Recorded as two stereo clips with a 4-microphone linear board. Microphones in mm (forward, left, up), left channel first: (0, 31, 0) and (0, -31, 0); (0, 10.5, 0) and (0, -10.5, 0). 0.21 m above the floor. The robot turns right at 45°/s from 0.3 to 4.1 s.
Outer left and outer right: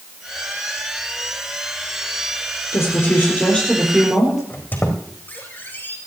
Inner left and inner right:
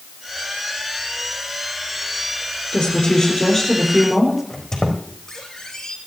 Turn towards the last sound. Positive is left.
turn(degrees=30)  # may be behind; listen again after turning